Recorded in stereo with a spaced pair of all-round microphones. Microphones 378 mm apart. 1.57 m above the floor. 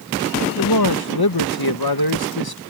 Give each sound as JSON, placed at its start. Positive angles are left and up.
{"t": 0.6, "sound": "a man speaking", "side_deg": 70}